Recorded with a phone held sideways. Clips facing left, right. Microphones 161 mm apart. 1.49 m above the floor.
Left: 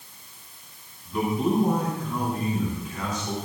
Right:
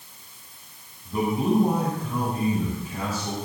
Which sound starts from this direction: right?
A man speaking, at 1.1 s.